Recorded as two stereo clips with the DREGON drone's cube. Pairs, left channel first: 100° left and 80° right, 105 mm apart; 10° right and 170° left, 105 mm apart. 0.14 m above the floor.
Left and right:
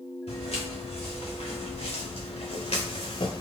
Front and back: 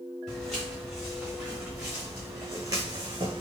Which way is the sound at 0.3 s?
80° left.